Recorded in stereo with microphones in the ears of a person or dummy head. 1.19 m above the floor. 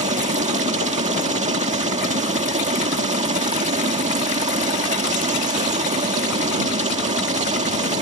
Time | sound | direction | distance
0.0 | a helicopter | 30° right (ahead or behind) | ?